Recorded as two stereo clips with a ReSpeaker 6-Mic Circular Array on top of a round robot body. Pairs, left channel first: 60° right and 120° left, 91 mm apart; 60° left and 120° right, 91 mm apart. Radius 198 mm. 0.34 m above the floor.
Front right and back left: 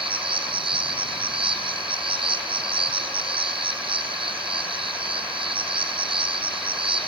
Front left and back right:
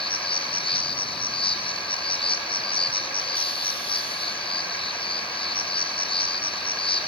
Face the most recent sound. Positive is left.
turn(degrees=90)